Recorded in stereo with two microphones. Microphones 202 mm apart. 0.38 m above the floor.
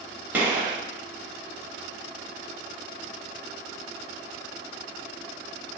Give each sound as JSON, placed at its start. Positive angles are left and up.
{"t": 0.3, "sound": "a gunshot", "side_deg": -10, "distance_m": 0.9}